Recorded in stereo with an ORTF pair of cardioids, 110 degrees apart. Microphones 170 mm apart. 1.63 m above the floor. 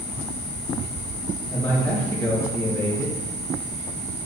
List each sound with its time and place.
1.5 s a man speaking: 10° left, 3 m